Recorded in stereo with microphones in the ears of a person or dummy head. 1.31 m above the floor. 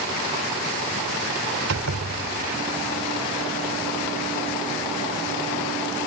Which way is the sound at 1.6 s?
85° right.